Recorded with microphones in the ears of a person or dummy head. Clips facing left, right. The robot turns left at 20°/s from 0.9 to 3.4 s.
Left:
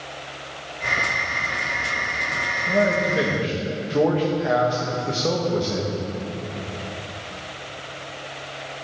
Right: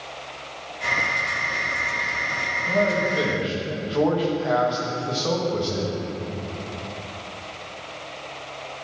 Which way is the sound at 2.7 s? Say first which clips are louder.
Left 1 dB; 15° left (ahead or behind).